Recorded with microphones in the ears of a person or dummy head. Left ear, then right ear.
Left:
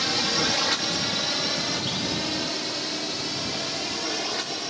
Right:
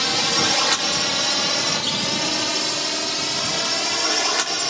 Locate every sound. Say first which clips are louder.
0.0 s a drone: right 4 dB; 25° right (ahead or behind); by 4.7 s 50° right (ahead or behind)